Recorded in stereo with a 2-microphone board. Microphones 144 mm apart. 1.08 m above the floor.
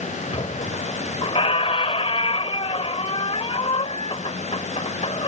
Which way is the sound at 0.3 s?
45° left (ahead or behind).